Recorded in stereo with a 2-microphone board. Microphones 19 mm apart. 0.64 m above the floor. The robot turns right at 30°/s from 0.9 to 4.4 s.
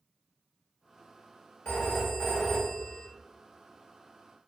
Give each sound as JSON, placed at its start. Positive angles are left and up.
{"t": 1.6, "sound": "a phone ringing", "azimuth_deg": 115, "distance_m": 1.1}